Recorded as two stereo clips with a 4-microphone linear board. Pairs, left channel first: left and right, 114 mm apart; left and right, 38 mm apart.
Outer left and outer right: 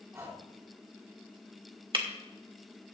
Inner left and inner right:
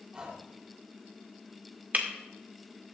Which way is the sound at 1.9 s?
45° right (ahead or behind).